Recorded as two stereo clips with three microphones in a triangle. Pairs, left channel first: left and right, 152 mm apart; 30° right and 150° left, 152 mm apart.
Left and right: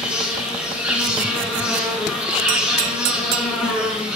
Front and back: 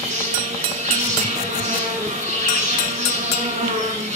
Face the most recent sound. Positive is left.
turn(degrees=-170)